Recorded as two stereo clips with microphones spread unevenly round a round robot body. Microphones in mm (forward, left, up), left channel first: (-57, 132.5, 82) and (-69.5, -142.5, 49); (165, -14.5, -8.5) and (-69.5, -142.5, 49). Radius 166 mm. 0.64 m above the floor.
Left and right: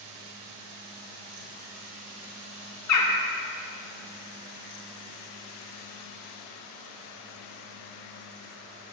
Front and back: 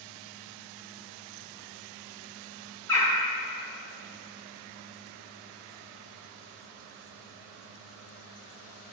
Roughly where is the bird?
Left.